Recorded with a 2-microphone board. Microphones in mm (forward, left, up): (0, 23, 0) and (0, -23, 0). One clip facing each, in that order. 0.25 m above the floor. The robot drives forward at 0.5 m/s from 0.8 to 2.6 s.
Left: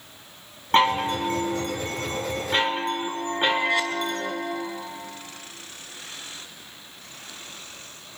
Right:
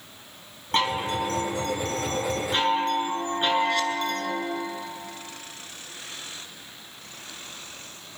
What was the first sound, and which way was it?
A chime, 30° left (ahead or behind).